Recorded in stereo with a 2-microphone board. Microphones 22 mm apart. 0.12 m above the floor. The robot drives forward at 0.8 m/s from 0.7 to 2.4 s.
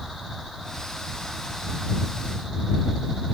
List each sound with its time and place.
Only background noise.